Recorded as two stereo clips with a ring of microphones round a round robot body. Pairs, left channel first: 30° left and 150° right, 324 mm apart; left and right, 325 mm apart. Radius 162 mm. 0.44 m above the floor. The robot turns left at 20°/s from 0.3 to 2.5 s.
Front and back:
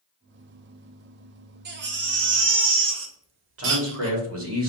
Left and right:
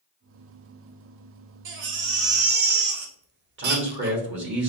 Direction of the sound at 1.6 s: 110° right.